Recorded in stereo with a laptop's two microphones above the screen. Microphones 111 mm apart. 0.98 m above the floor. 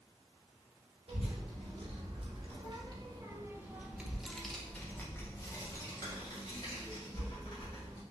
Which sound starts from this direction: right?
A child speaking, at 1.1 s.